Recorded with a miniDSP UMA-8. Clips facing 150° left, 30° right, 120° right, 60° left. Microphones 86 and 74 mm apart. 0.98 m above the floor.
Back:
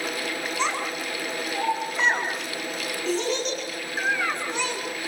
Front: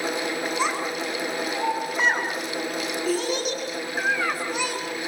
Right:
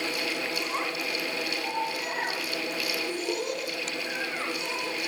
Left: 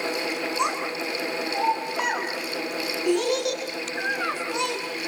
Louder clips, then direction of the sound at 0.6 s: Back 1 dB, left 5 dB; 55° left.